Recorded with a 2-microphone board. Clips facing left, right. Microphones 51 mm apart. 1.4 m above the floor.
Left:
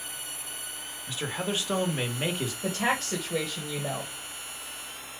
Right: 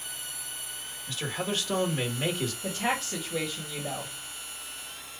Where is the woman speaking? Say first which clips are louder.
Left 4 dB; 75° left (ahead or behind), 1.7 m.